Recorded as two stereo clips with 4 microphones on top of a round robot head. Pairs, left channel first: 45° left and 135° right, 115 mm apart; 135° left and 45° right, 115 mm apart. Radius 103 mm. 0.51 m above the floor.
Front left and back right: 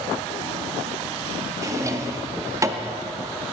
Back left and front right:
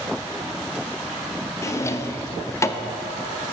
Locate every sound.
1.6 s a drawer: 175° right, 0.5 m